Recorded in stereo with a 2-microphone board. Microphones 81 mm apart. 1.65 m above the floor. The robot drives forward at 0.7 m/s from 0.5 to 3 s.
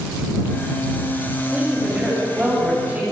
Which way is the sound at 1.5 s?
10° right (ahead or behind).